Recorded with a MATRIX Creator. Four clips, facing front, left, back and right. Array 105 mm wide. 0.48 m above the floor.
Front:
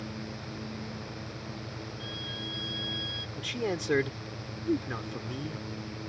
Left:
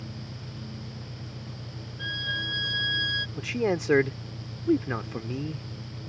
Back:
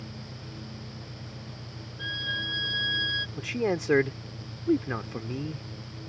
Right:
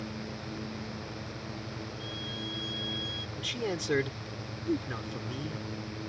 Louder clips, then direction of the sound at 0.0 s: Right 3 dB, front 4 dB; 100° left.